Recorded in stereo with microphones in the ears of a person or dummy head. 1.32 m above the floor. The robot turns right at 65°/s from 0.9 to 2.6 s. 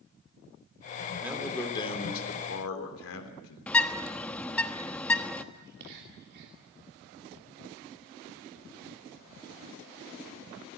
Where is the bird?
10° left (ahead or behind), 1.2 m.